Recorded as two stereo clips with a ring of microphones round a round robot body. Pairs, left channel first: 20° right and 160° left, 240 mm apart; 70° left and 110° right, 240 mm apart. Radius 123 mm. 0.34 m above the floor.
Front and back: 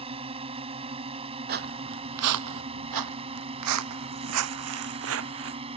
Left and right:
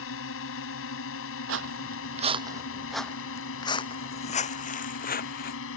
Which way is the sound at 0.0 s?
95° left.